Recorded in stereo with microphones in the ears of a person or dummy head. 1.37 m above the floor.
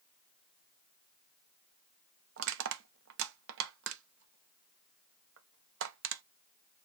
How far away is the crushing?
About 0.6 m.